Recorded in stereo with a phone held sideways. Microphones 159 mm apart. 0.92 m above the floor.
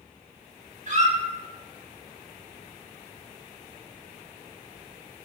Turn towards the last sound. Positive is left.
turn(degrees=-50)  # may be behind; listen again after turning